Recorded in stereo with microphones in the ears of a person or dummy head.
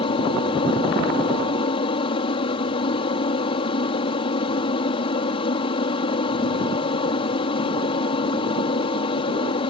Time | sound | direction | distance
0.0 | an aircraft | 30° left (ahead or behind) | ?